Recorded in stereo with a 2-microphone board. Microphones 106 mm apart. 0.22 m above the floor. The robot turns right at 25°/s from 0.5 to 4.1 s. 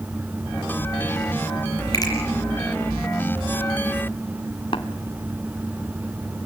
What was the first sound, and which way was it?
A finger snap, 35° left (ahead or behind).